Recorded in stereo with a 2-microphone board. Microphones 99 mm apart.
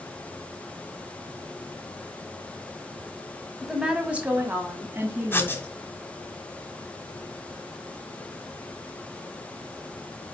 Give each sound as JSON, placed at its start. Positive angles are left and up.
{"t": 3.6, "sound": "a woman speaking", "side_deg": -5, "distance_m": 1.5}
{"t": 5.3, "sound": "writing", "side_deg": 20, "distance_m": 1.2}